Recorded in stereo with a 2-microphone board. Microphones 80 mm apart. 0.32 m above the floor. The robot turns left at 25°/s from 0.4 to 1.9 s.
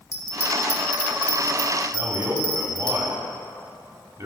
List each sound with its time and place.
0.1 s a bell: 35° left (ahead or behind), 1.2 m; by 2.9 s 15° left (ahead or behind), 1.2 m
1.9 s a man speaking: 45° right (ahead or behind), 1.5 m